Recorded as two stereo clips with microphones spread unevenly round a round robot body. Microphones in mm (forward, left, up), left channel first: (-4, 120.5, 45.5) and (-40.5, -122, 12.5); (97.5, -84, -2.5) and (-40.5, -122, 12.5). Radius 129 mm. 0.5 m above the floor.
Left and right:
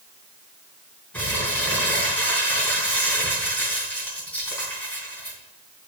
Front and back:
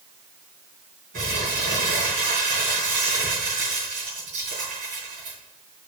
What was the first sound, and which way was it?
Crumpling, 165° left.